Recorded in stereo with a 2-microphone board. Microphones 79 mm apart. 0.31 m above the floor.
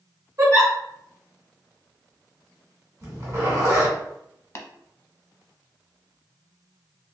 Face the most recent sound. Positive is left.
turn(degrees=40)  # may be behind; listen again after turning